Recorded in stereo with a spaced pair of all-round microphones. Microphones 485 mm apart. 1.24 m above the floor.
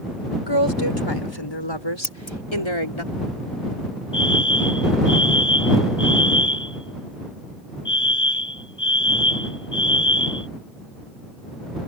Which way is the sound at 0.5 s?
60° left (ahead or behind).